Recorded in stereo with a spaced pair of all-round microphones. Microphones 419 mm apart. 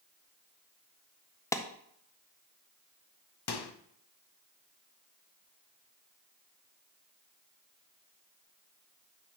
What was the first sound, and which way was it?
A clap, 5° left (ahead or behind).